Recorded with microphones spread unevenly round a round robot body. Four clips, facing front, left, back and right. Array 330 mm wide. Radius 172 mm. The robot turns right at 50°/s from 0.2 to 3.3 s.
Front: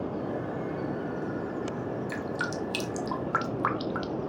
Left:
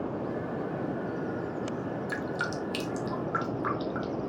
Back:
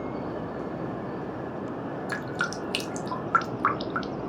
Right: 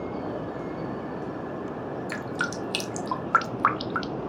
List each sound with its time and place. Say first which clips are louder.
2.1 s dripping: right 1 dB, back 1 dB; 155° right, 1.3 m; by 4.1 s 95° right, 1.3 m